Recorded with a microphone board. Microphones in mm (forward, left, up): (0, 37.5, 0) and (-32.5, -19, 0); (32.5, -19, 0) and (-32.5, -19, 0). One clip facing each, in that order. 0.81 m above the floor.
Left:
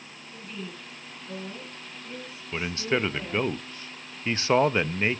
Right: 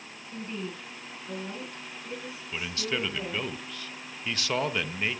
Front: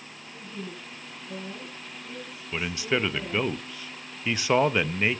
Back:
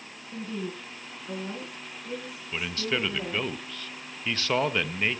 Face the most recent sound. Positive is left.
turn(degrees=60)